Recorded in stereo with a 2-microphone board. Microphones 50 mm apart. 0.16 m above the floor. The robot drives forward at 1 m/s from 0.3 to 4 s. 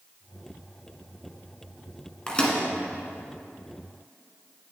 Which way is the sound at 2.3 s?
20° left (ahead or behind).